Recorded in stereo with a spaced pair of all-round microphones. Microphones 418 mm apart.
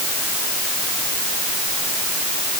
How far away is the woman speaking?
I don't hear a woman speaking.